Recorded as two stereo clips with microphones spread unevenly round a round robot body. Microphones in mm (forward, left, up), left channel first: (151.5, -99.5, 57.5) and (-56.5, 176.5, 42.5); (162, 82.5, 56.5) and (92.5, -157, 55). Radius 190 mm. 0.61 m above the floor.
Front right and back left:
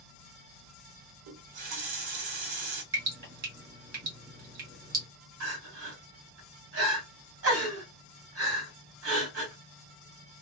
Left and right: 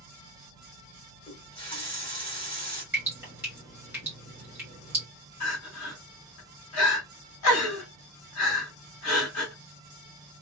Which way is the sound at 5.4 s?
80° left.